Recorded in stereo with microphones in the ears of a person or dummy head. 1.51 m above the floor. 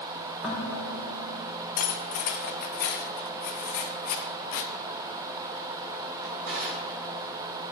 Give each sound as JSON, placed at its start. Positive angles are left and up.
{"t": 0.4, "sound": "dishes clattering", "side_deg": 0, "distance_m": 2.0}
{"t": 1.8, "sound": "cutlery clinking", "side_deg": 50, "distance_m": 1.6}
{"t": 4.5, "sound": "tearing paper", "side_deg": 65, "distance_m": 1.1}
{"t": 6.2, "sound": "a drawer", "side_deg": -70, "distance_m": 3.5}